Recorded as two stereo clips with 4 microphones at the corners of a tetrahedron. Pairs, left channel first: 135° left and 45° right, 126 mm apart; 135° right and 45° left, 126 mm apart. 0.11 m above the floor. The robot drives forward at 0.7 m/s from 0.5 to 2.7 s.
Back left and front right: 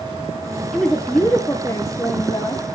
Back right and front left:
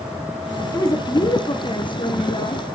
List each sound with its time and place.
0.7 s a woman speaking: 140° right, 1.2 m; by 2.6 s 170° right, 2 m